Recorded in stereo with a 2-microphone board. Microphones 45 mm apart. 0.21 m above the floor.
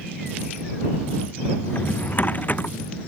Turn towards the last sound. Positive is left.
turn(degrees=40)  # may be behind; listen again after turning